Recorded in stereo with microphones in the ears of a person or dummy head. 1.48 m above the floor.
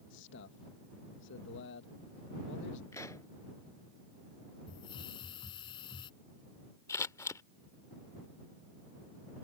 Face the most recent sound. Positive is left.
turn(degrees=15)  # may be behind; listen again after turning